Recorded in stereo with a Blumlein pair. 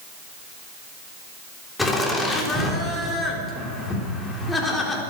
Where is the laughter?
10° left, 3.5 m.